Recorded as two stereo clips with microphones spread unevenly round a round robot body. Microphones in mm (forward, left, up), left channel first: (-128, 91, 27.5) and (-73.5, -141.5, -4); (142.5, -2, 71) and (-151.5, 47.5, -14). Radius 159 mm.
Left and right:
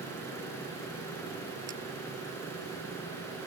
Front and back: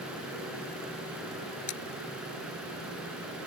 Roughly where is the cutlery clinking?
Ahead.